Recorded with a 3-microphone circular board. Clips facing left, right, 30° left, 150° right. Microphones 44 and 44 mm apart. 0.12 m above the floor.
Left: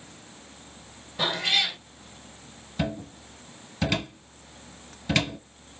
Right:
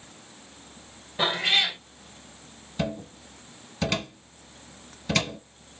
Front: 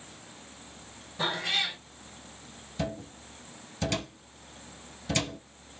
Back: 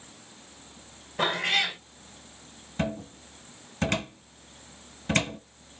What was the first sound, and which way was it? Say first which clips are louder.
A cat meowing: right 2 dB, back 4 dB; 160° right.